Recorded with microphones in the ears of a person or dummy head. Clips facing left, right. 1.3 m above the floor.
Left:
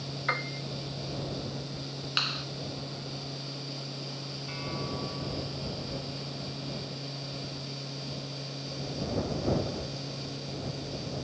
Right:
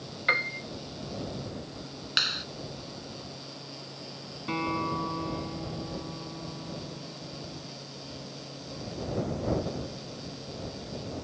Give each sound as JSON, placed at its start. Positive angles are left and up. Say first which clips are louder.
{"t": 0.3, "sound": "a piano", "louder": "right 2 dB", "side_deg": -35}
{"t": 2.2, "sound": "a clap", "louder": "left 2 dB", "side_deg": -15}
{"t": 4.5, "sound": "a guitar", "louder": "right 7 dB", "side_deg": -70}